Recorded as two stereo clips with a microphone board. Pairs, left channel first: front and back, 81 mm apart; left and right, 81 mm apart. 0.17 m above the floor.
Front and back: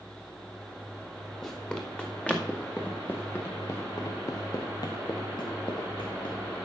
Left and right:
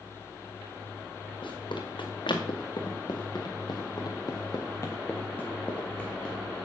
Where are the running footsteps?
85° left, 3.5 m; by 6.3 s 10° left, 2.5 m.